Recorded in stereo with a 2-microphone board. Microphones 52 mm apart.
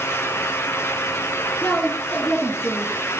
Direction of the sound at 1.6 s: 35° left (ahead or behind).